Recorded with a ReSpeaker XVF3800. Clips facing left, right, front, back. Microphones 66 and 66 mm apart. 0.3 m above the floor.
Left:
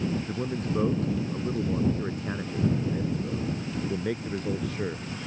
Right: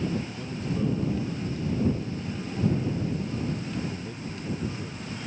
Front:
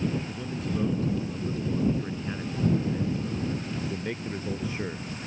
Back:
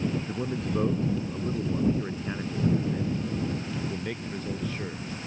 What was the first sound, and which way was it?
A man speaking, 135° left.